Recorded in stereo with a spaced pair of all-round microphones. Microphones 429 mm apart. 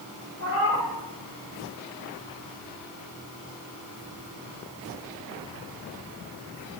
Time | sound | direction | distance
0.4 | a cat meowing | 35° right (ahead or behind) | 2.5 m